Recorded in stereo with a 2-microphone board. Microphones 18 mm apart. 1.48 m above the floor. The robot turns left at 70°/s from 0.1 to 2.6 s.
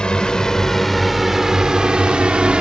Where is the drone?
55° left (ahead or behind); by 2.6 s 65° right (ahead or behind).